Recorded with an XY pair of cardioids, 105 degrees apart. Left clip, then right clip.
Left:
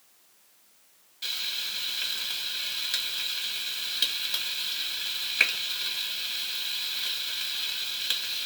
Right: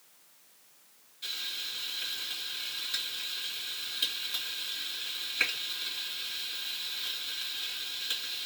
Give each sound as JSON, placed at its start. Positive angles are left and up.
{"t": 1.2, "sound": "frying", "azimuth_deg": 65, "distance_m": 1.8}